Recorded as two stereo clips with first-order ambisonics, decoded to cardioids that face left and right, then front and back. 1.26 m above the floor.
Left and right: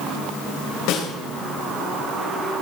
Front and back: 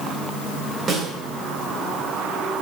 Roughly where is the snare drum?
Behind left.